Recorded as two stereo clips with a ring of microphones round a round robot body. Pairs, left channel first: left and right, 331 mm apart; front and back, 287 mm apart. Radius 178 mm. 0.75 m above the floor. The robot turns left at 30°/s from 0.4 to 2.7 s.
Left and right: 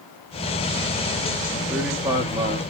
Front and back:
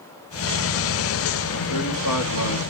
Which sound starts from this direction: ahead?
A man speaking, at 1.7 s.